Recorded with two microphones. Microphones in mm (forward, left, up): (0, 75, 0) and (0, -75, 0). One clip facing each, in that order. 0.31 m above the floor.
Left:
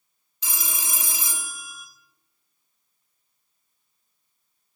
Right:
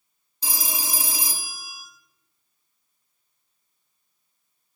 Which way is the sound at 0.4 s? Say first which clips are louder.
Right 3 dB; 35° right (ahead or behind).